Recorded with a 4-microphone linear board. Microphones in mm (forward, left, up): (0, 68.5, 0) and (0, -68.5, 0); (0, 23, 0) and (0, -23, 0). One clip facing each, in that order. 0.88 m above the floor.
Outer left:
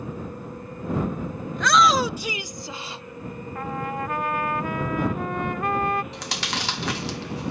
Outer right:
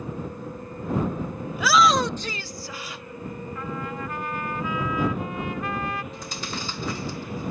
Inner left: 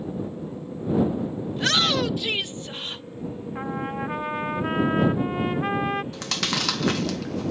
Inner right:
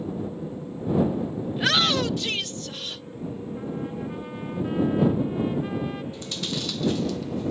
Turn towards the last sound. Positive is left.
turn(degrees=75)  # may be behind; listen again after turning